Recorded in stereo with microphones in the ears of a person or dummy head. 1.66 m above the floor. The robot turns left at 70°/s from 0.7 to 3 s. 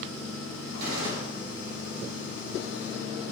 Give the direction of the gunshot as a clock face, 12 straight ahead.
2 o'clock.